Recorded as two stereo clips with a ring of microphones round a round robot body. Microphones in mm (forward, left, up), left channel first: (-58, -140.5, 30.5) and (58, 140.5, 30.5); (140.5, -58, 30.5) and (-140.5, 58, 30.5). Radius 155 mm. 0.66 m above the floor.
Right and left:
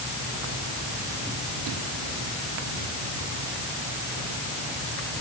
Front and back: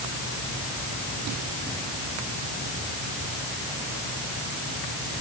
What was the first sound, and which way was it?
Only background noise.